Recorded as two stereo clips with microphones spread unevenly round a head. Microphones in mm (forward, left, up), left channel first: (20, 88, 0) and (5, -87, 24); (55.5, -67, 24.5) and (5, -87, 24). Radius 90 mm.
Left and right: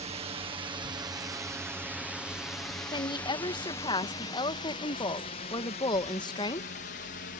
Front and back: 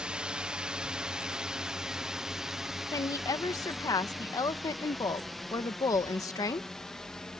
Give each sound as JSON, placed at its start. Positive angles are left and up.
{"t": 0.0, "sound": "a drone", "azimuth_deg": -110}
{"t": 2.9, "sound": "a woman speaking", "azimuth_deg": 20}